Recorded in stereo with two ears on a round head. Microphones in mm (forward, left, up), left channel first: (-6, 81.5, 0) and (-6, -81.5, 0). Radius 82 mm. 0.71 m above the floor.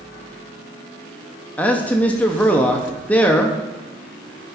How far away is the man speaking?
About 0.6 m.